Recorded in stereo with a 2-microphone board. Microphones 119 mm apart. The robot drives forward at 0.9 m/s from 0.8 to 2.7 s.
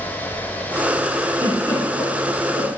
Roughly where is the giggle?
Right.